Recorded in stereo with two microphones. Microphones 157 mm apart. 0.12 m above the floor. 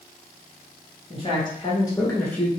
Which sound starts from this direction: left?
A man speaking, at 1.1 s.